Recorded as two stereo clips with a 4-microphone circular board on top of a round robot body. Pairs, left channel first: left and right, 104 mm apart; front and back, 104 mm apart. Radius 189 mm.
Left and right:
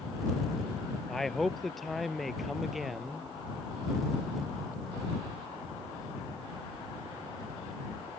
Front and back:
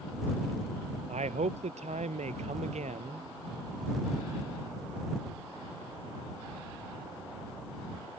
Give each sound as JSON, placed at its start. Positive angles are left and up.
{"t": 1.1, "sound": "a man speaking", "azimuth_deg": 180}